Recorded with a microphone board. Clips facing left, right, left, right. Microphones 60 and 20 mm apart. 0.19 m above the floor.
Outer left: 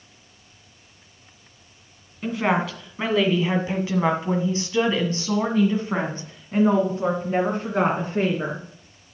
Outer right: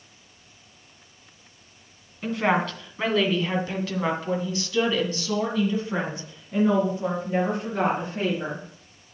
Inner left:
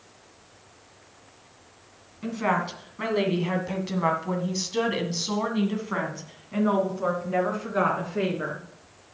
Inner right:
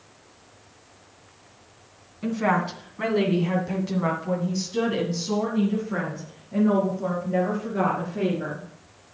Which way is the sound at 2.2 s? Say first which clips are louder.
Outer left 1 dB, inner right 2 dB; 5° left (ahead or behind).